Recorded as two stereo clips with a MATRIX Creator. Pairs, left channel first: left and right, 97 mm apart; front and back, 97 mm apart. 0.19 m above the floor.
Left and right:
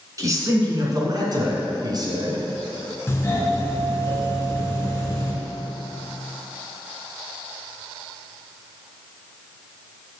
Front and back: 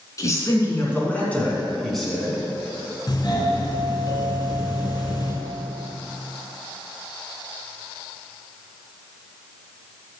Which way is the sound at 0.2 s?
45° right.